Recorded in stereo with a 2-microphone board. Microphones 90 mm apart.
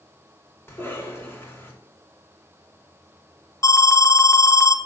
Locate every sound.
0.7 s a cough: 25° left (ahead or behind), 2.5 m
3.6 s an alarm: 40° left (ahead or behind), 0.6 m